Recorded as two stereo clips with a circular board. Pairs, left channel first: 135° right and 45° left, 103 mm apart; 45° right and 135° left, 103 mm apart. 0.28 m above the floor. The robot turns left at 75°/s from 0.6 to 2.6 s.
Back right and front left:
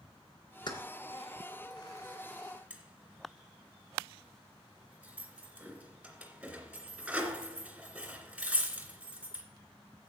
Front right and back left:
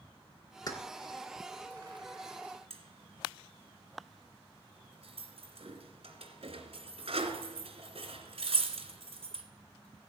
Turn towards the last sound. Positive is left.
turn(degrees=125)